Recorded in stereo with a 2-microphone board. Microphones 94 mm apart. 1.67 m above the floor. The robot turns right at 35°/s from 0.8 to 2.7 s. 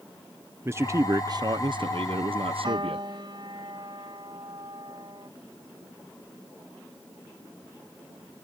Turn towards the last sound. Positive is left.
turn(degrees=-55)  # may be behind; listen again after turning